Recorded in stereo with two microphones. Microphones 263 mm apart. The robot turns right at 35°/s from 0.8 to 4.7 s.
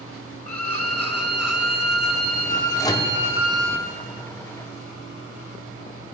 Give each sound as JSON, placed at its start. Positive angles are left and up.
{"t": 0.5, "sound": "a violin", "azimuth_deg": -115, "distance_m": 0.7}
{"t": 2.8, "sound": "a microwave", "side_deg": 15, "distance_m": 0.7}